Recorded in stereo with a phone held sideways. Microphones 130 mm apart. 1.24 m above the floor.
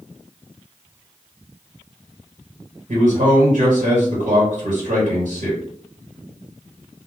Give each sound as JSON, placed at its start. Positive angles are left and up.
{"t": 2.9, "sound": "a man speaking", "side_deg": -80, "distance_m": 1.3}